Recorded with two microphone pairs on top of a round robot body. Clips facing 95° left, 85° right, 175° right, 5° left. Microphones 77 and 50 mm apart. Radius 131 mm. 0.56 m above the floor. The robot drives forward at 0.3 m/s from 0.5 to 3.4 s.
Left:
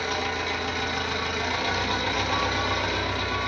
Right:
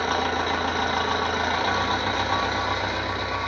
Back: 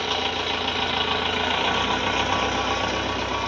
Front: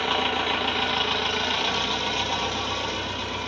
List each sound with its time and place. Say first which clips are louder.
0.0 s an engine running: right 4 dB, front 1 dB; 70° right, 0.7 m; by 3.5 s 150° right, 1.0 m